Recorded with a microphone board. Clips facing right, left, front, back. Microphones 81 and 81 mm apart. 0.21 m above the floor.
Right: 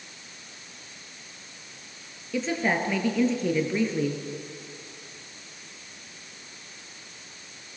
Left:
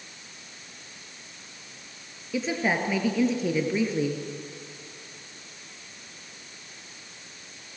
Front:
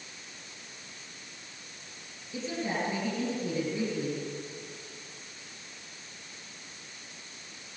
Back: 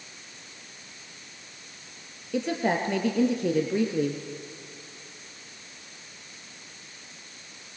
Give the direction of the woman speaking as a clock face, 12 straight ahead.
6 o'clock.